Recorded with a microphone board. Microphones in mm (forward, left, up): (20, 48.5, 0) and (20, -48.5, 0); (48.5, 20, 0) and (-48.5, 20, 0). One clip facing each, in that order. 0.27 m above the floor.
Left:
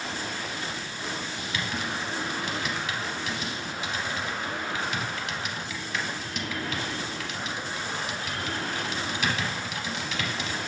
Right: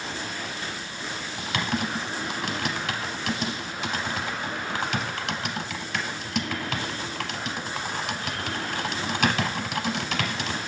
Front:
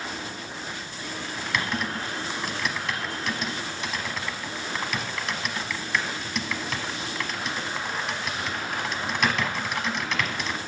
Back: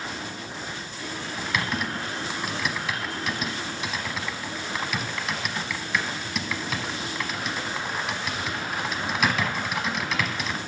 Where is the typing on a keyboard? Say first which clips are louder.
Right 8 dB, even; 90° right, 0.7 m.